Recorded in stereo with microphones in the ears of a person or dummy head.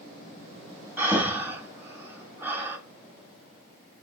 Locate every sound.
1.0 s breathing: 10° right (ahead or behind), 1.0 m